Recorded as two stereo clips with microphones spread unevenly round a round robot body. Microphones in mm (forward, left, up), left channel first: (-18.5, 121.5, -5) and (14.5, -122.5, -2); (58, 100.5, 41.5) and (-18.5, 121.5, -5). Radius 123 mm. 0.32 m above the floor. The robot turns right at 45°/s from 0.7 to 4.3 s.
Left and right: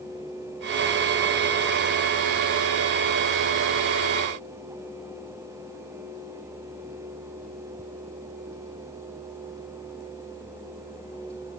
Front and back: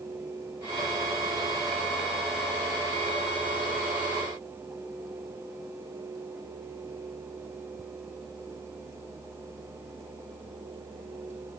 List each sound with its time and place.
Only background noise.